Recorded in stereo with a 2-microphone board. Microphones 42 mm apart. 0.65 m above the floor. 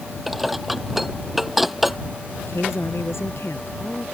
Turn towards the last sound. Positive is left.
turn(degrees=75)  # may be behind; listen again after turning